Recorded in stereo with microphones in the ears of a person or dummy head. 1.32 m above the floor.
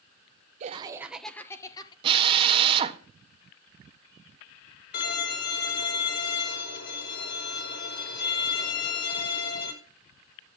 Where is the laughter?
35° right (ahead or behind), 0.7 m; by 1.9 s 25° left (ahead or behind), 1.4 m.